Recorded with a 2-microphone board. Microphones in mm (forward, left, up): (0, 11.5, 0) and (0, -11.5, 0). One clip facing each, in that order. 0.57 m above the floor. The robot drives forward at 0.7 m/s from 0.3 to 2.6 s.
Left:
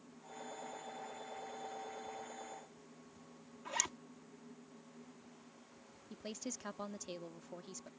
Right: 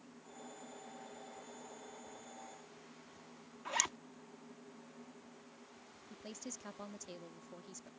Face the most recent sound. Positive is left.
turn(degrees=25)  # may be behind; listen again after turning